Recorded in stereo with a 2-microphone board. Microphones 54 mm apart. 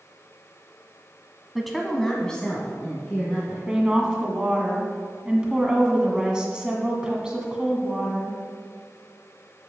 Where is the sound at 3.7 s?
15° right (ahead or behind), 1.5 m.